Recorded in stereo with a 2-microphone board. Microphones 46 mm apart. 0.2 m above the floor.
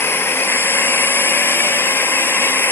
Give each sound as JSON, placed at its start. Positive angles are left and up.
{"t": 0.0, "sound": "a drone", "side_deg": 60}